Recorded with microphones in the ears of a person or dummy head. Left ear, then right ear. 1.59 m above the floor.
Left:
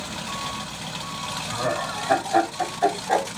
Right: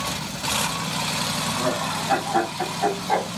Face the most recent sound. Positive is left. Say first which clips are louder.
# right 2 dB
turn(degrees=80)